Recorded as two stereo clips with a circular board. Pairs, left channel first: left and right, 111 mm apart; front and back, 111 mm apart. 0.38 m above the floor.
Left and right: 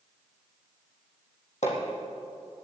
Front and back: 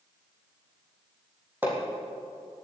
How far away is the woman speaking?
I don't hear a woman speaking.